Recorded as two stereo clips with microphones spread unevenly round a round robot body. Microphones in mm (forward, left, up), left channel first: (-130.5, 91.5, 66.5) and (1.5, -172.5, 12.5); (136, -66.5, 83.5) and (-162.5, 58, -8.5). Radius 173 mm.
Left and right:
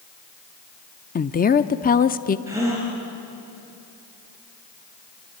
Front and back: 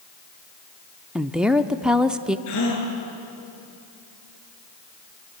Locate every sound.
1.1 s a woman speaking: 150° left, 0.7 m
2.5 s a gasp: 20° left, 4.5 m